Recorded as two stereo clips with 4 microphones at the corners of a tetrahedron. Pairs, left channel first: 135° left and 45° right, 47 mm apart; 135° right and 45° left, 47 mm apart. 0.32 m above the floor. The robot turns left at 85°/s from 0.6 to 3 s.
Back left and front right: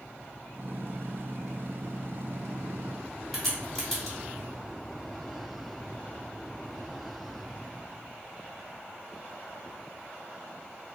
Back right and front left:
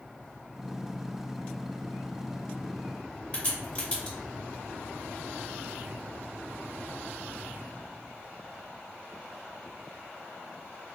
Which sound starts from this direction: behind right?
A crack, at 3.3 s.